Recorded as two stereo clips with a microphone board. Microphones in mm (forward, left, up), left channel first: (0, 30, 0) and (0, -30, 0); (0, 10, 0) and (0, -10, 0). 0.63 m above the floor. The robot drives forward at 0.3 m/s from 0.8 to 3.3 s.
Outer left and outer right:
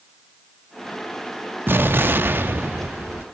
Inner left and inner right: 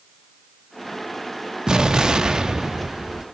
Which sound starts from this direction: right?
An explosion, at 1.7 s.